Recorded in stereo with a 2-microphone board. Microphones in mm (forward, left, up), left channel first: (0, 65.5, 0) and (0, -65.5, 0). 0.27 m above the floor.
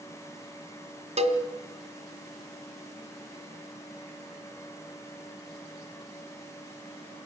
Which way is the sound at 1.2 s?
55° right (ahead or behind).